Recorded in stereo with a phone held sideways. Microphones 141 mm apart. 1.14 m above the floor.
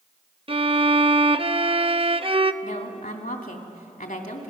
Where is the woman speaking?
80° left, 2.5 m.